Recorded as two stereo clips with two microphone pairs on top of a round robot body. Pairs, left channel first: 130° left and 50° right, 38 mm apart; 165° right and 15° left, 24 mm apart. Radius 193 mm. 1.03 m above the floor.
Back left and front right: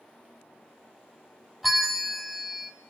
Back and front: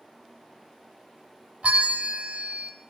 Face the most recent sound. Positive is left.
turn(degrees=40)